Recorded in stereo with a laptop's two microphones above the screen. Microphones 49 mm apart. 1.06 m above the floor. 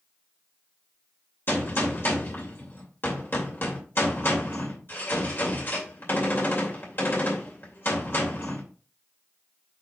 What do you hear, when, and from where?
1.5 s a gunshot: 50° left (ahead or behind), 2.5 m